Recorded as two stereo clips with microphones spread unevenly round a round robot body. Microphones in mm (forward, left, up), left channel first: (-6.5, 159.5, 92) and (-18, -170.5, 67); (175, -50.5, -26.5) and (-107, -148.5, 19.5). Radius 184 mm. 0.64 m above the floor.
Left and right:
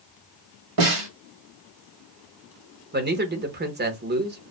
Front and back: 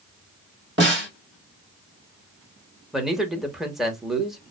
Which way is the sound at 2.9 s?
60° right.